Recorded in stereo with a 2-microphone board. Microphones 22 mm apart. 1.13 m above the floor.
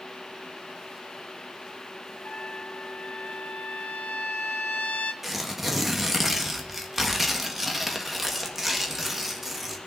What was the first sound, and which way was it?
A trumpet, 80° left.